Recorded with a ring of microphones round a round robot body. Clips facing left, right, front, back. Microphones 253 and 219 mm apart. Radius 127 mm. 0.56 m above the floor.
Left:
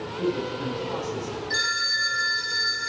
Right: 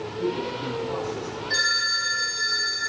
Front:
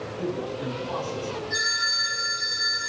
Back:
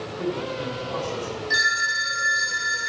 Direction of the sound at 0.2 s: 125° left.